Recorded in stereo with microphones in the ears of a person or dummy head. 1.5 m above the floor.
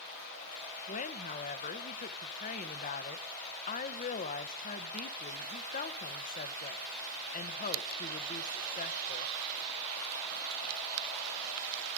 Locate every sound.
0.9 s a woman speaking: 40° left (ahead or behind), 0.9 m